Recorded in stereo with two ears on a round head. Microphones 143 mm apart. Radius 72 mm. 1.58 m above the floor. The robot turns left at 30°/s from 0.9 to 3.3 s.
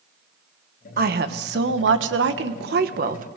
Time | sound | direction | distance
1.0 | a woman speaking | 55° right | 1.4 m